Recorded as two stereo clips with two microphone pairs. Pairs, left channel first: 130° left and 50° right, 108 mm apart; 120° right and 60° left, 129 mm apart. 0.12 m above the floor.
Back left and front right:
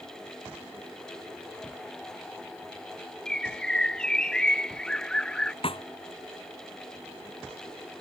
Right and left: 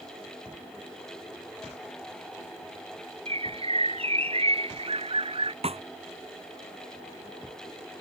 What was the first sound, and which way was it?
A bird, 50° left.